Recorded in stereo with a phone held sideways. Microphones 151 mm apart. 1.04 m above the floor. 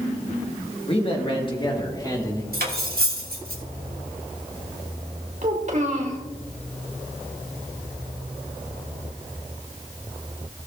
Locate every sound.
0.9 s a man speaking: 40° left (ahead or behind), 1.5 m; by 2.4 s 25° left (ahead or behind), 2.5 m
2.5 s cutlery clinking: 85° right, 1.6 m
5.4 s a child speaking: 55° right (ahead or behind), 1.9 m